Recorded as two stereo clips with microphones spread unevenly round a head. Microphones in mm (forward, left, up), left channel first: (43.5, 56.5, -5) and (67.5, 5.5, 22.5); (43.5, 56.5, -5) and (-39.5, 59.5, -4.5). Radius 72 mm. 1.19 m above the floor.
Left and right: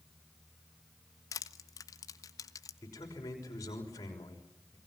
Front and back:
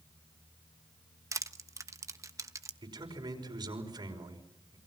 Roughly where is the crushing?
Behind left.